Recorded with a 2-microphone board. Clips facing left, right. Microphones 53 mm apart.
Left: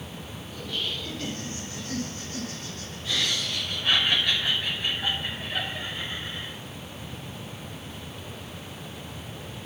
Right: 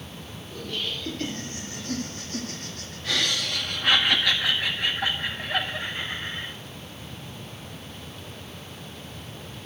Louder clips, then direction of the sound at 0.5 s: Right 1 dB; 45° right (ahead or behind).